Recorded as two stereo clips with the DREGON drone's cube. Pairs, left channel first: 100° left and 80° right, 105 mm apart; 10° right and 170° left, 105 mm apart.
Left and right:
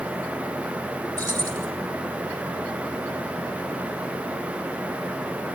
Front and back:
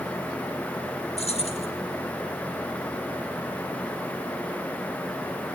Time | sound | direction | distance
1.2 | keys jangling | 15° right | 4.5 m